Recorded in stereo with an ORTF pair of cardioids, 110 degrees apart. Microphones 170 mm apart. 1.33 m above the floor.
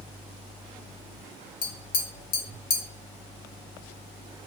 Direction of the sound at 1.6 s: 55° left.